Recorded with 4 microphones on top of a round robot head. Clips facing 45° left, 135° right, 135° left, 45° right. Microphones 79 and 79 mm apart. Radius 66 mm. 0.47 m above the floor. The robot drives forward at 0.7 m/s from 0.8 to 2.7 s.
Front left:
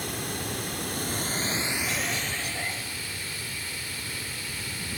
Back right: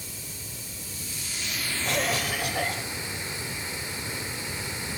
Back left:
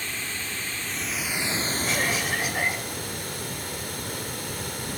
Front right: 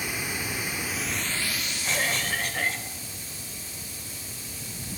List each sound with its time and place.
0.0 s running water: 30° left, 0.7 m; by 5.0 s 160° left, 0.9 m
1.8 s a cough: 140° right, 2.0 m; by 2.9 s 150° right, 2.5 m